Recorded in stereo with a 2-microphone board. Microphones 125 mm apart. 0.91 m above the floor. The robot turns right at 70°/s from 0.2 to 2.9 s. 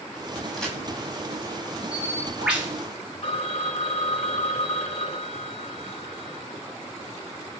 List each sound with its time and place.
0.5 s a crack: centre (ahead or behind), 4.5 m; by 0.8 s 15° left (ahead or behind), 4.5 m
1.9 s a bird: 145° left, 5 m; by 2.7 s 155° right, 5 m
3.2 s a phone ringing: 55° left (ahead or behind), 1.2 m